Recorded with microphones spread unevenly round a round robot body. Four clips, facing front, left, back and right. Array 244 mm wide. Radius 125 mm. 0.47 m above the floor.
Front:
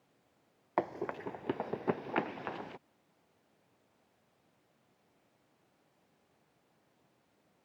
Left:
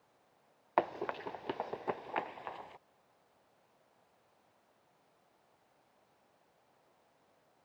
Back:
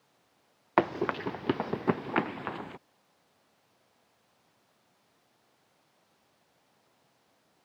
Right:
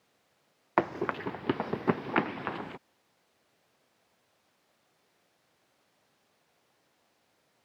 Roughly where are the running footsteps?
Behind right.